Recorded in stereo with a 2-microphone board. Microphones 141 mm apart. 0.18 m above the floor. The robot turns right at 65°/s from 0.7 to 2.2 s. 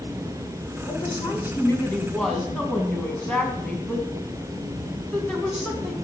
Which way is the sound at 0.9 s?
30° left (ahead or behind).